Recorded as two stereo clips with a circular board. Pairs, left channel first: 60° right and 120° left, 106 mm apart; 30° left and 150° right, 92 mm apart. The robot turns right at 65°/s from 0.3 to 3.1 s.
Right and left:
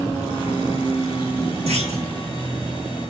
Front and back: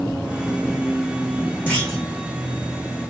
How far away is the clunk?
About 7 m.